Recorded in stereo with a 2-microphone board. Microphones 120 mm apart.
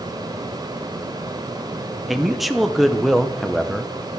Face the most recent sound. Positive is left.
turn(degrees=0)  # may be behind; listen again after turning